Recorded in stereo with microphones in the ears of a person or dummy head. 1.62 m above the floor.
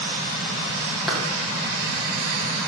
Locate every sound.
1.1 s a clap: 5° left (ahead or behind), 3 m